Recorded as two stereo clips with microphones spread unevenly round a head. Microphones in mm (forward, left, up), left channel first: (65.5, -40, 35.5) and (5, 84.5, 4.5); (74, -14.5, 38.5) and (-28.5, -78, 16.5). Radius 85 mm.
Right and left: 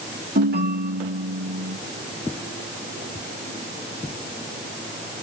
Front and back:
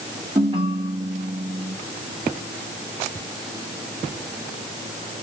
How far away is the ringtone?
About 1.8 m.